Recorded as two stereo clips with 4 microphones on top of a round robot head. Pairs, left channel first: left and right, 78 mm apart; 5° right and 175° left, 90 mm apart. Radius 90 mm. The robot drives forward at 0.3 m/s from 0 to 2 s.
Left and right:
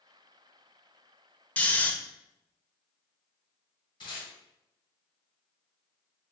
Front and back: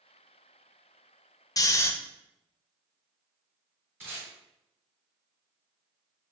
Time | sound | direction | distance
1.6 | snoring | 25° left | 0.5 m
4.0 | tape being pulled | 110° left | 1.7 m